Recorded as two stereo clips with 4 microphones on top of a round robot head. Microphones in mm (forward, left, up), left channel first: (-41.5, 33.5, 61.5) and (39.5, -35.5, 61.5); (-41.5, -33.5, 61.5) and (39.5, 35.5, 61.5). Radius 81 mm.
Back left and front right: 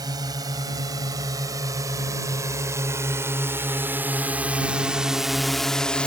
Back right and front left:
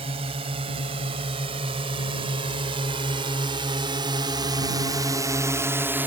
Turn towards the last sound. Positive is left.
turn(degrees=75)